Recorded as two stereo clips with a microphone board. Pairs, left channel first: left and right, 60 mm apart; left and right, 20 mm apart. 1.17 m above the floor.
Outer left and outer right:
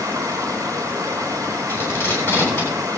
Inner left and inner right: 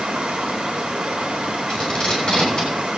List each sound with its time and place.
0.0 s running water: 80° right, 3 m
1.7 s tape being pulled: 30° left (ahead or behind), 8 m